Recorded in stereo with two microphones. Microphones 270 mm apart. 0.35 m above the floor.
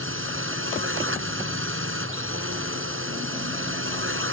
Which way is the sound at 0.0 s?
45° right (ahead or behind).